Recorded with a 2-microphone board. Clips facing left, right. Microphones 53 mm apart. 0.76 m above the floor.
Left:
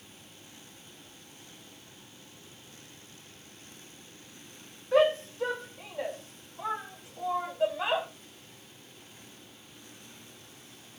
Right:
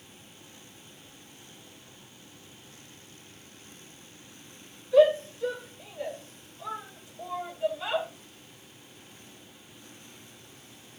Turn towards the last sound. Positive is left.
turn(degrees=80)